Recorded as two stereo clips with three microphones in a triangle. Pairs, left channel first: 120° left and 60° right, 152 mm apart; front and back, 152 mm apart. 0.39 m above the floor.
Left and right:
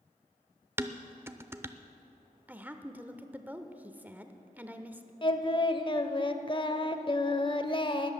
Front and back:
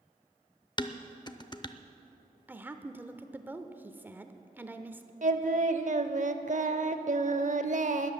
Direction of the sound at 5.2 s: 170° left.